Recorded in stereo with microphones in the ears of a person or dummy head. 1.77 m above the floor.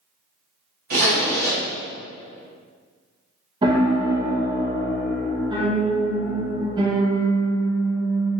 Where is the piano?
30° right (ahead or behind), 0.7 m.